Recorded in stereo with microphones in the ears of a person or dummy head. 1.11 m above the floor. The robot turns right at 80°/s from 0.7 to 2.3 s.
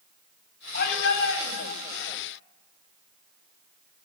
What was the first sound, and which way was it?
A shout, 65° left.